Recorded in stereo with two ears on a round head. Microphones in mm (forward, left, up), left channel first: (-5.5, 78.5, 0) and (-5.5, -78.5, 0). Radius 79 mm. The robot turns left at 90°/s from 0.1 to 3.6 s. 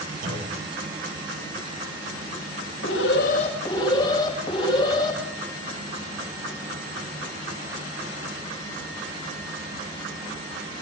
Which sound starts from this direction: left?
An alarm, at 2.8 s.